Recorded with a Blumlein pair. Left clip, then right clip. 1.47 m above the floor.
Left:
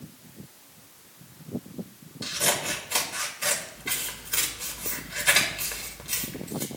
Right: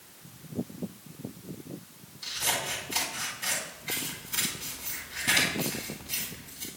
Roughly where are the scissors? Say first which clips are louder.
Left 3 dB; ahead left.